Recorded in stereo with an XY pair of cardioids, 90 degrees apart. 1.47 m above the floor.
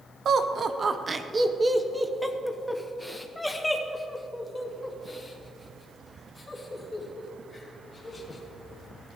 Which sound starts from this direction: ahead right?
Laughter, at 0.2 s.